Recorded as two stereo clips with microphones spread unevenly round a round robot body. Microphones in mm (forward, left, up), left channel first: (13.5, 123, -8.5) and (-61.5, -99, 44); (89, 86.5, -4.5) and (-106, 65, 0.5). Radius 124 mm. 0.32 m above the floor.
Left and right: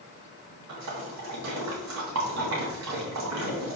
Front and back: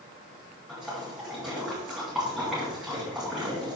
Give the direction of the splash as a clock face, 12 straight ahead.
3 o'clock.